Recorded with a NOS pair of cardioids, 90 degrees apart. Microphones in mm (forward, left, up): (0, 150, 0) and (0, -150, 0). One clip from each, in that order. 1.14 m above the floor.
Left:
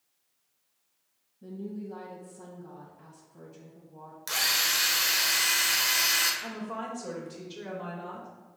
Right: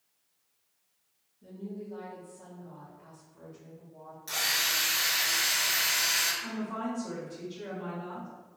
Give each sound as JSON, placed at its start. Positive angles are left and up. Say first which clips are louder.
{"t": 1.4, "sound": "a woman speaking", "louder": "left 2 dB", "azimuth_deg": 65, "distance_m": 1.6}
{"t": 4.3, "sound": "a drill", "louder": "left 2 dB", "azimuth_deg": 65, "distance_m": 1.3}
{"t": 6.4, "sound": "a woman speaking", "louder": "even", "azimuth_deg": 50, "distance_m": 1.9}